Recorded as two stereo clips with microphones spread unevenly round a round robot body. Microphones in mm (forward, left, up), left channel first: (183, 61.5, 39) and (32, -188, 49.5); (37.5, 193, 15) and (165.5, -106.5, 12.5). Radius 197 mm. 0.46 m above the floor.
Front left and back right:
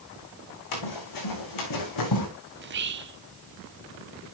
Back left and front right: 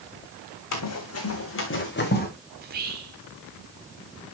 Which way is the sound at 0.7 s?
75° left.